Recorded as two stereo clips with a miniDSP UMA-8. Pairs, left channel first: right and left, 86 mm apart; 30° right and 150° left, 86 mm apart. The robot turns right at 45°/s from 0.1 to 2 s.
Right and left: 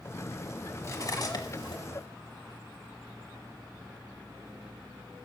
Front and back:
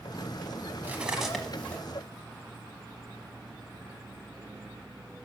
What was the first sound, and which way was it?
Cutlery clinking, 145° right.